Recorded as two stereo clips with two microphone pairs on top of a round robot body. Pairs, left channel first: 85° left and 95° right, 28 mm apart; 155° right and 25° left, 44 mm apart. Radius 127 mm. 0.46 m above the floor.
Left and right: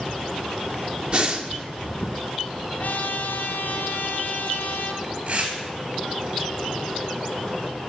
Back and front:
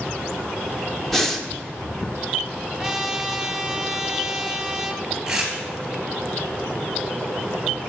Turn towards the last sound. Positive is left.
turn(degrees=-60)